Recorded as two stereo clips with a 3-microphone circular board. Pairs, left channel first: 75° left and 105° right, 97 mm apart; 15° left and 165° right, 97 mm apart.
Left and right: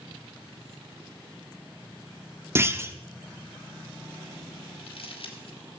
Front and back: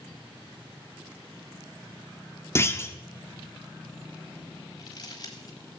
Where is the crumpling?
60° left, 3 m.